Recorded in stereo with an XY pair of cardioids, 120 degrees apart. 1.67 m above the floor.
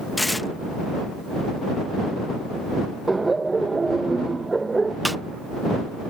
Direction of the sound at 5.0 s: 5° right.